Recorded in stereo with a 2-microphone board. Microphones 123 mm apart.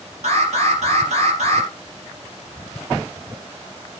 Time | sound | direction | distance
0.2 | an alarm | 65° right (ahead or behind) | 3.5 m